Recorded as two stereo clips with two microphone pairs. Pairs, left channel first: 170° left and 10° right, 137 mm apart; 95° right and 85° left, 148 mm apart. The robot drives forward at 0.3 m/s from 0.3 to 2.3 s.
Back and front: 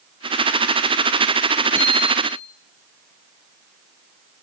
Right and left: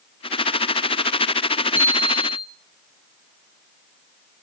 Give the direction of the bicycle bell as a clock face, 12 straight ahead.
4 o'clock.